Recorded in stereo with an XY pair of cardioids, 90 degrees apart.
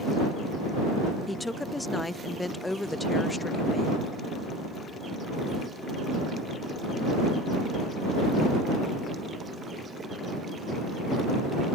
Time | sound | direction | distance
1.3 | a woman speaking | 15° left | ?